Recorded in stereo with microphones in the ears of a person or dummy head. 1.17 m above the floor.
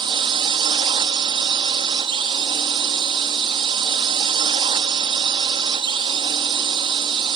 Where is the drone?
25° right (ahead or behind).